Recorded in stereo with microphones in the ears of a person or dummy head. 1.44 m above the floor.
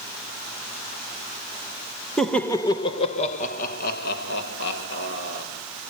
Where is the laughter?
10° left (ahead or behind), 1.7 m; by 5.5 s 80° left, 3.5 m.